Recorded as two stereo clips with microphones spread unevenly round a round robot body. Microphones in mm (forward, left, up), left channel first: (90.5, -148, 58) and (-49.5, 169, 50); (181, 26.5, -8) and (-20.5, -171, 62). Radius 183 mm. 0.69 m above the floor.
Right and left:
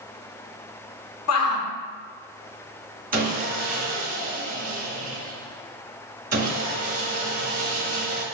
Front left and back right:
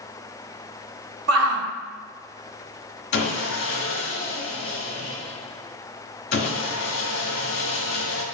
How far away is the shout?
About 0.6 m.